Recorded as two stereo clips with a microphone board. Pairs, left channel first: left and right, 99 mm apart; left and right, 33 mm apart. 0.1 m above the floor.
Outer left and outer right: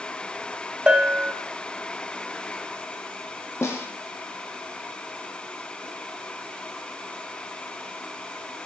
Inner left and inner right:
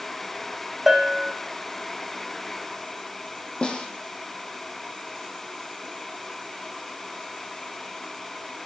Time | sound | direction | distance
0.9 | a bell | 10° right (ahead or behind) | 0.9 m
3.6 | a snare drum | 30° left (ahead or behind) | 2 m